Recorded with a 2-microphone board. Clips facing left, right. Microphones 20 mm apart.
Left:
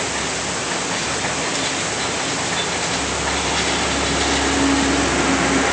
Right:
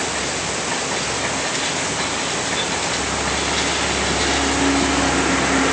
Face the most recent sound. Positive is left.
No sound to turn to.